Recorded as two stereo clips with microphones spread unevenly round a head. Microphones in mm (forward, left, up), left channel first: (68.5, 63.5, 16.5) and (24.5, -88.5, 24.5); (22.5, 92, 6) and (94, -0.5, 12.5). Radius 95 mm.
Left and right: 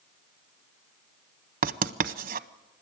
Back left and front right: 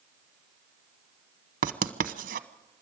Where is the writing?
75° right, 0.9 m.